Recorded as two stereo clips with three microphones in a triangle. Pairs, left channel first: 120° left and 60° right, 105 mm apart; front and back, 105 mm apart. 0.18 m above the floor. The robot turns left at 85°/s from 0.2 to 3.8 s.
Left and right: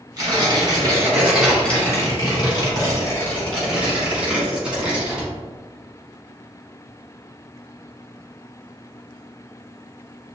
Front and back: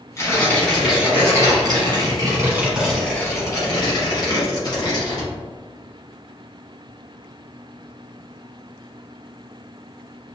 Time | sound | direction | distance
0.2 | tearing paper | 40° right | 1.3 m